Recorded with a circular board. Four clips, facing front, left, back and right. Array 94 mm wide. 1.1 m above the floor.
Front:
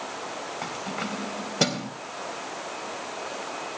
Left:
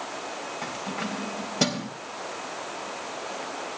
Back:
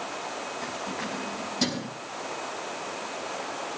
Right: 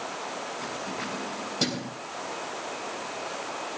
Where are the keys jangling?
20° left, 4 m.